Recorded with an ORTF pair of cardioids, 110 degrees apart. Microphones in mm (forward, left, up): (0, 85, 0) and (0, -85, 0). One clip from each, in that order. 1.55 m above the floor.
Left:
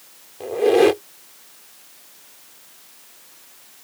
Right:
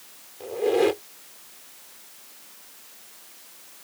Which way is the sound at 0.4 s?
40° left.